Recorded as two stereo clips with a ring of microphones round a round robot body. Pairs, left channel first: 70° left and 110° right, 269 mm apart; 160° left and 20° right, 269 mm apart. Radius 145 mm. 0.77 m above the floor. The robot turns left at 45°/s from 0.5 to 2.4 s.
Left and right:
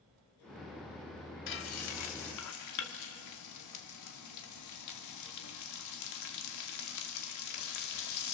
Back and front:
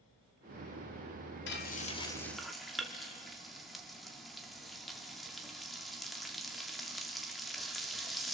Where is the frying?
110° left, 1.8 m; by 8.3 s 70° left, 1.8 m.